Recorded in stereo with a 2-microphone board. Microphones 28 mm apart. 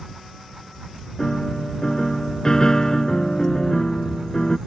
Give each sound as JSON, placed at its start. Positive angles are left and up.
{"t": 1.2, "sound": "a piano", "side_deg": 25}